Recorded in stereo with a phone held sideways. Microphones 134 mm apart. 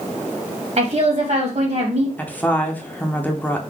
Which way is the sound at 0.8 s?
60° right (ahead or behind).